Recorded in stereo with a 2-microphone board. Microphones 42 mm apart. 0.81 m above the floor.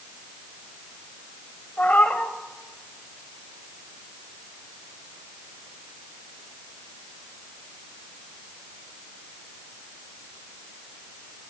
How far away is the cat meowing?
About 1.1 m.